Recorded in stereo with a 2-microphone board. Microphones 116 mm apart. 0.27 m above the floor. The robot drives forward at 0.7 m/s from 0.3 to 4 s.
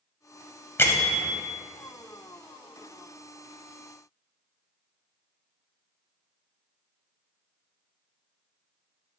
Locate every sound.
0.8 s a bell: 20° left (ahead or behind), 0.9 m; by 1.3 s 25° left (ahead or behind), 0.7 m